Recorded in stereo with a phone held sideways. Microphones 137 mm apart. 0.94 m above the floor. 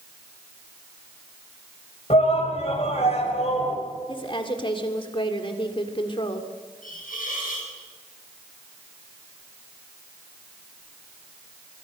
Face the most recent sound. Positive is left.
turn(degrees=85)